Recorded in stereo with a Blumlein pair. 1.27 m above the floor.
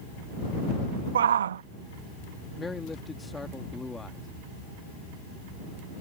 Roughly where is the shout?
Ahead right.